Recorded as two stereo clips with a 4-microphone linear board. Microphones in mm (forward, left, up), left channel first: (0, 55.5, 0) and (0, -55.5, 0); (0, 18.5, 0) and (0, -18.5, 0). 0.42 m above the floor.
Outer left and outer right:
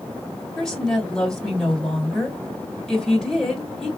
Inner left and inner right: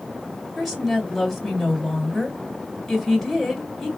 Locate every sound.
0.6 s a woman speaking: 5° left (ahead or behind), 2.0 m